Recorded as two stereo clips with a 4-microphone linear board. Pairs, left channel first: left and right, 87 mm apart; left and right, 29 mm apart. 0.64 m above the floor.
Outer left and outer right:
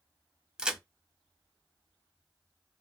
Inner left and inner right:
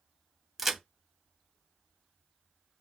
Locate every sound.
0.6 s a crack: 10° right (ahead or behind), 0.7 m